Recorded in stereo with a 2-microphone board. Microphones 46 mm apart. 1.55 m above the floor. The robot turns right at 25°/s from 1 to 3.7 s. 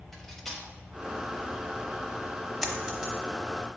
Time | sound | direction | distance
0.1 | cutlery clinking | 5° left (ahead or behind) | 1.0 m
2.6 | a dropped coin | 5° left (ahead or behind) | 1.2 m